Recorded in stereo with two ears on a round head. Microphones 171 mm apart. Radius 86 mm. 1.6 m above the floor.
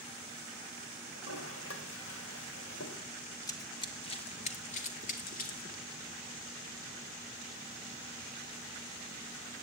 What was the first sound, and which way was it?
A toilet flushing, 75° left (ahead or behind).